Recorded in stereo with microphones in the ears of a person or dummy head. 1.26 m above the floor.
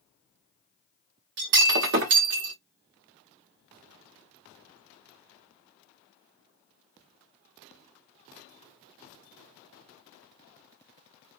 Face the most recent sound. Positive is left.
turn(degrees=-55)  # may be behind; listen again after turning